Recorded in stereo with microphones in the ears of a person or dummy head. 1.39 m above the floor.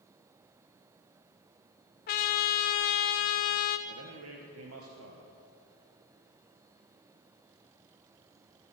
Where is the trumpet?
35° left (ahead or behind), 0.7 m.